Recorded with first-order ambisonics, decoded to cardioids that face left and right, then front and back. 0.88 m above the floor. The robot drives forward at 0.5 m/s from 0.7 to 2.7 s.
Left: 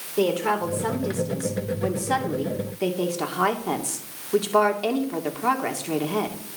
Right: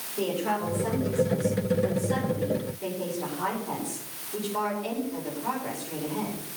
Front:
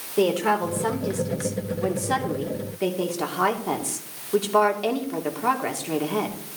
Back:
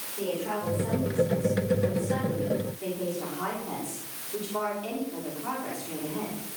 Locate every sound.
0.2 s a woman speaking: 35° left, 3 m; by 6.4 s 50° left, 2.5 m